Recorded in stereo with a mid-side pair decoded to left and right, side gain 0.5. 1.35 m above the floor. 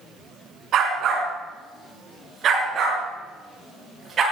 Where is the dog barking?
65° right, 4 m; by 4.2 s 50° right, 7.5 m.